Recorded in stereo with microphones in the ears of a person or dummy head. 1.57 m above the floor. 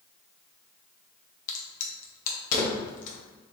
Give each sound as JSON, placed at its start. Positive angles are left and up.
{"t": 1.5, "sound": "a crack", "side_deg": 45, "distance_m": 0.8}